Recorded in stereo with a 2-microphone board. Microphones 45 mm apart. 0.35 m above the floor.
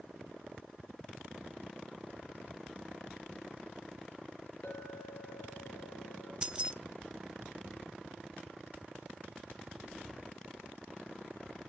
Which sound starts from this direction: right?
Keys jangling, at 6.4 s.